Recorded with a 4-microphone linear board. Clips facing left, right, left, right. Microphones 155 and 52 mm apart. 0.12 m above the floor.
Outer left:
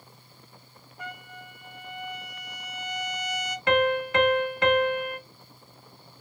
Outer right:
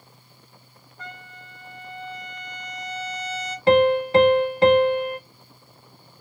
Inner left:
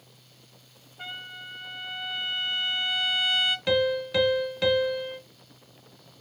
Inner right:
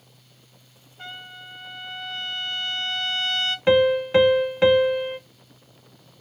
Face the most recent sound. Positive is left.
turn(degrees=-35)  # may be behind; listen again after turning